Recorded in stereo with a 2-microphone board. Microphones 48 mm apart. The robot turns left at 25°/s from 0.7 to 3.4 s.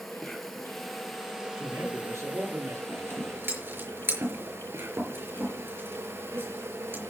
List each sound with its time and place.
0.0 s an insect: 5° left, 2.0 m; by 7.1 s 65° right, 2.0 m
1.5 s a man speaking: 65° right, 8 m; by 2.8 s 95° right, 8 m
2.9 s scissors: 60° right (ahead or behind), 5.5 m; by 7.1 s 50° right (ahead or behind), 5.5 m